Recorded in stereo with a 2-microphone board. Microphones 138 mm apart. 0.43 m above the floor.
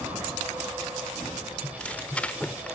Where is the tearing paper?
10° left (ahead or behind), 0.5 m.